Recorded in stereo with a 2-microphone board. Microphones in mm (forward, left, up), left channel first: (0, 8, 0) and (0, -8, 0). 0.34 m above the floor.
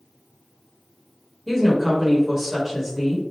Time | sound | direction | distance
1.5 | a woman speaking | 15° right (ahead or behind) | 1.3 m